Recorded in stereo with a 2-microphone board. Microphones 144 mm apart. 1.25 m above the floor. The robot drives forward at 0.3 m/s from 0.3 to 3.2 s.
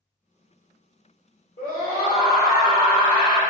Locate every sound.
1.6 s a scream: 50° left (ahead or behind), 1.2 m; by 3.4 s 35° left (ahead or behind), 1.6 m